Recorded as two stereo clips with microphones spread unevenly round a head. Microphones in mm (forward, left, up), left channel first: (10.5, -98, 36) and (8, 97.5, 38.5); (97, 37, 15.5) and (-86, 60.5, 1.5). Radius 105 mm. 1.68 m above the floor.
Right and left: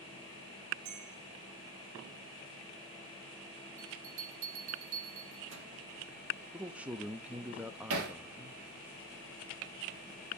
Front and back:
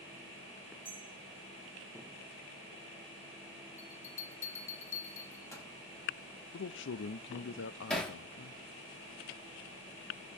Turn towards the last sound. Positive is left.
turn(degrees=80)